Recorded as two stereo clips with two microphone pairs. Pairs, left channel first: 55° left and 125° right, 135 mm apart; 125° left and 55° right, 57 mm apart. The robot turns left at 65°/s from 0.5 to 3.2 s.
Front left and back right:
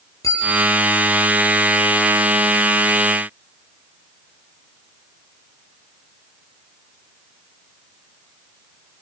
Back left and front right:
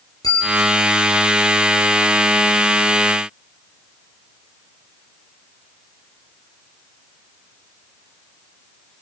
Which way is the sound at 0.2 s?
125° left.